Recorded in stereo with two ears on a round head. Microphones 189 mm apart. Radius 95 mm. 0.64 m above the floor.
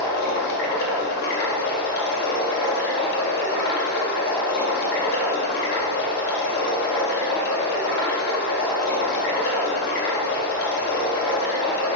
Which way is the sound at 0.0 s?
45° left (ahead or behind).